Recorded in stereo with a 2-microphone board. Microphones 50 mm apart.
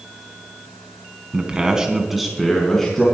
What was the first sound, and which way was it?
A man speaking, 25° right (ahead or behind).